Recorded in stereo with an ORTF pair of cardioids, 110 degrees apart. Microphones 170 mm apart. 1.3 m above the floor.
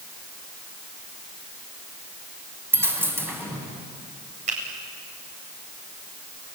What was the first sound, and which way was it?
A dropped coin, 15° right.